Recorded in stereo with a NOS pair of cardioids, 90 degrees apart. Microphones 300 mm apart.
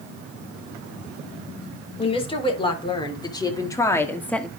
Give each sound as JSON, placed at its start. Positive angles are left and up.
{"t": 2.0, "sound": "a woman speaking", "azimuth_deg": 20, "distance_m": 4.0}